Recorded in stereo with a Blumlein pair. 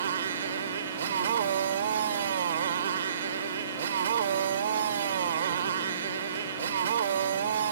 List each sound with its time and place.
0.0 s a motorcycle: 65° right